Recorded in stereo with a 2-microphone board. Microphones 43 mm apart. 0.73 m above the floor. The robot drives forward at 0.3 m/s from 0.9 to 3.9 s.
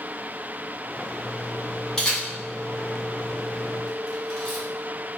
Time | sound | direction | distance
2.0 | a camera shutter | 10° left (ahead or behind) | 1.0 m